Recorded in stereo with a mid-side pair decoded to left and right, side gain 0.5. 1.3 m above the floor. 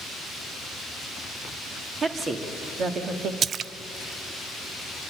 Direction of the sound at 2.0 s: 35° right.